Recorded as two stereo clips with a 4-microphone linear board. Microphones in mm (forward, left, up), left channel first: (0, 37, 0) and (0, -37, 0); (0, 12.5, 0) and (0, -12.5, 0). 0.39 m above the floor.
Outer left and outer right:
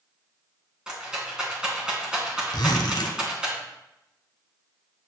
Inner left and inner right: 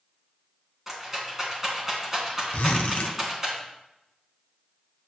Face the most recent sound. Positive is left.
turn(degrees=75)  # may be behind; listen again after turning